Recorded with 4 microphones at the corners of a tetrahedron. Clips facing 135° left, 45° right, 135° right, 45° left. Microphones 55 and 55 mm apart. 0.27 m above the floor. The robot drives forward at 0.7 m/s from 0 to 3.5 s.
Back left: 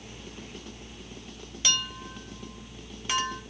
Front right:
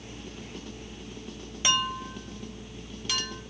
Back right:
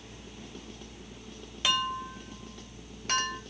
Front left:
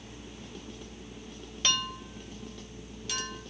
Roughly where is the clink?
Ahead right.